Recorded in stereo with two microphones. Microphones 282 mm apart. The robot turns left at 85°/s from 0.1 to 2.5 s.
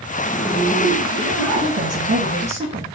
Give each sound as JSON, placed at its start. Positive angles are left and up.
{"t": 0.2, "sound": "a zipper", "azimuth_deg": 15, "distance_m": 2.0}
{"t": 1.6, "sound": "a woman speaking", "azimuth_deg": -80, "distance_m": 2.5}